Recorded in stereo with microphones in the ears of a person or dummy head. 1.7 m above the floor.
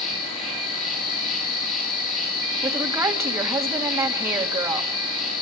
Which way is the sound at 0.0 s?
35° left (ahead or behind).